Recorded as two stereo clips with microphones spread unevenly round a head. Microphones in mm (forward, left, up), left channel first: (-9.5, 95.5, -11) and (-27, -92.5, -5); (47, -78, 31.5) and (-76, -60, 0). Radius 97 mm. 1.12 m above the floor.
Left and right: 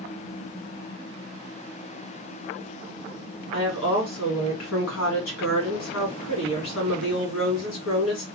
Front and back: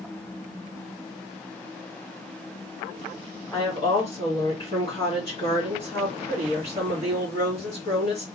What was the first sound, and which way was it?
A woman speaking, 65° left.